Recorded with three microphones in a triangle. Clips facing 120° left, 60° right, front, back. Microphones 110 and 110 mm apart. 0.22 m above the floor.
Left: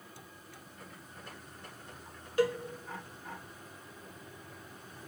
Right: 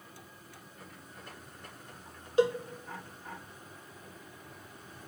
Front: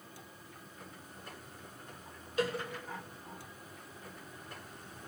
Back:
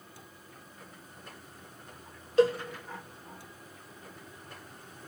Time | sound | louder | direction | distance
2.4 | a cowbell | right 3 dB, back 10 dB | 125° right | 0.5 m